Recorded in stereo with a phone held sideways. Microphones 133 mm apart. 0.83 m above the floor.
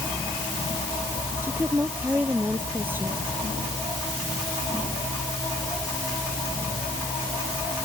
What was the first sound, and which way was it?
A woman speaking, 15° right (ahead or behind).